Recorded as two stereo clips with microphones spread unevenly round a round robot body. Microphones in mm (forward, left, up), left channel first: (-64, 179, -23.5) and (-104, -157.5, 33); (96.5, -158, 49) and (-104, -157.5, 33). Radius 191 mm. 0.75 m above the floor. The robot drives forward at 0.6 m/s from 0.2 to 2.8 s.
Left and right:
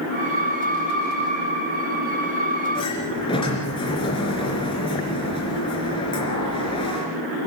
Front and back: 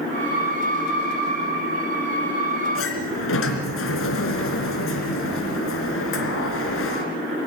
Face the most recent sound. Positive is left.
turn(degrees=5)